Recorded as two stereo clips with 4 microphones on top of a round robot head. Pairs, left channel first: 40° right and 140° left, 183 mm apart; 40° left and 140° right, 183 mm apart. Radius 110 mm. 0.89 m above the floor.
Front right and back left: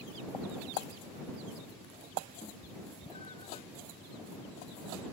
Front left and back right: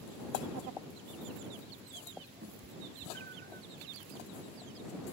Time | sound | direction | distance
2.4 | a cat meowing | 105° right | ?